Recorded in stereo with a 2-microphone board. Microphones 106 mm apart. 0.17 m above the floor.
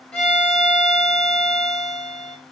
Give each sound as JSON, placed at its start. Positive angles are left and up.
{"t": 0.1, "sound": "a violin", "side_deg": 15, "distance_m": 3.5}